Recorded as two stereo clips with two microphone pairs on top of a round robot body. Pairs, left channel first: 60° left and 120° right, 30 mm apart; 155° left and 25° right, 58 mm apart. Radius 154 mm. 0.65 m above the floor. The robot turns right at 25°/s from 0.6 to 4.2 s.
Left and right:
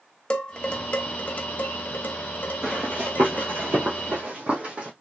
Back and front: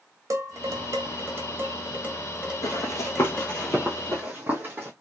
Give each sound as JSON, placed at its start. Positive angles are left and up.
{"t": 0.3, "sound": "dishes clattering", "azimuth_deg": 0, "distance_m": 1.2}
{"t": 2.6, "sound": "running footsteps", "azimuth_deg": 160, "distance_m": 1.0}